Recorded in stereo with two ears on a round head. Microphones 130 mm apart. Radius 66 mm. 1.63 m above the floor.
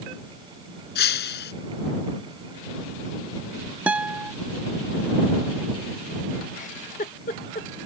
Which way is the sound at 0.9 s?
80° left.